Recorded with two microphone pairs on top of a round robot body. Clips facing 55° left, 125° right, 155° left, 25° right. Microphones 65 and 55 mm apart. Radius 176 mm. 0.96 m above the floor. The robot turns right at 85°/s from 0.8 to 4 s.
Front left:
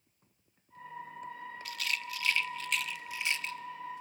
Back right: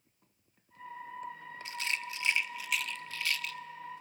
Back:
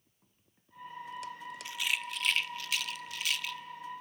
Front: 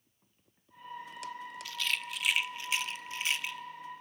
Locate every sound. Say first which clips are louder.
1.6 s a rattle: back right 1 dB, back 1 dB; 145° right, 0.7 m; by 3.6 s 20° left, 0.7 m